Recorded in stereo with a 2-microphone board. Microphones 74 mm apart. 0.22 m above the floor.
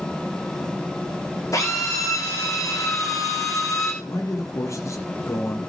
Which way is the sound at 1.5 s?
50° left (ahead or behind).